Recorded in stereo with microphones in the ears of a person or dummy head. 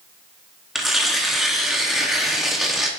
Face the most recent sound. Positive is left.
turn(degrees=0)  # may be behind; listen again after turning